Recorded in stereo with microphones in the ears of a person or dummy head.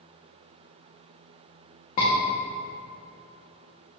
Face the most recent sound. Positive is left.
turn(degrees=45)  # may be behind; listen again after turning